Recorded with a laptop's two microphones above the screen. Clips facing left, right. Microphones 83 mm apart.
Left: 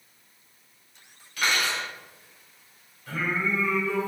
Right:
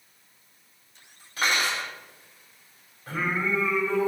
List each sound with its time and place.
1.4 s cutlery clinking: 30° right (ahead or behind), 3 m
3.1 s singing: 35° right (ahead or behind), 3 m